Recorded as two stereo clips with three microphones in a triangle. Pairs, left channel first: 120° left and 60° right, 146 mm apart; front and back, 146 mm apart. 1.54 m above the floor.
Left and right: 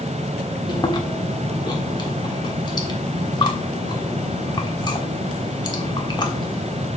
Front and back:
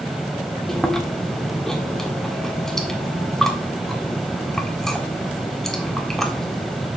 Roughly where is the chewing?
Left.